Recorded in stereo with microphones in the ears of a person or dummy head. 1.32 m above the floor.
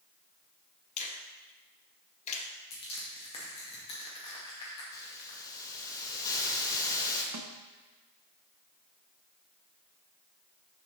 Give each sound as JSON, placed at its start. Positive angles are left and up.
{"t": 1.0, "sound": "a finger snap", "side_deg": 40, "distance_m": 0.8}
{"t": 2.7, "sound": "crushing", "side_deg": 30, "distance_m": 1.6}
{"t": 4.9, "sound": "a hiss", "side_deg": 20, "distance_m": 0.9}
{"t": 7.3, "sound": "a snare drum", "side_deg": -70, "distance_m": 0.7}